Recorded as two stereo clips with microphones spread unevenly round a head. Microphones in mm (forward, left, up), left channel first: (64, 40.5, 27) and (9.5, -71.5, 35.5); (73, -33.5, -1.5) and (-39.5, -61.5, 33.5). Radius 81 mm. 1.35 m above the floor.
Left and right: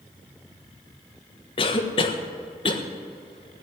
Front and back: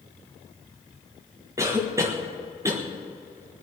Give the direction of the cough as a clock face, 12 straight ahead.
8 o'clock.